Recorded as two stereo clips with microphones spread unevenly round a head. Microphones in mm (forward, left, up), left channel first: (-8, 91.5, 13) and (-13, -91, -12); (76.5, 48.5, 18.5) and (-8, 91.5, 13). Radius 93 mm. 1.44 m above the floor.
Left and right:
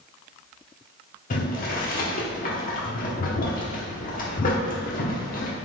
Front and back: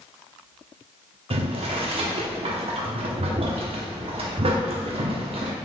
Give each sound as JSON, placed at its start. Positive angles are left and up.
{"t": 1.3, "sound": "boiling", "azimuth_deg": 135, "distance_m": 0.8}